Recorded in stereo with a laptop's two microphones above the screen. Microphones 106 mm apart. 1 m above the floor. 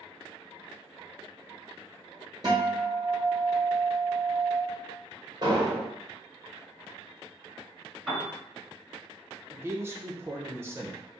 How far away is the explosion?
About 1.2 m.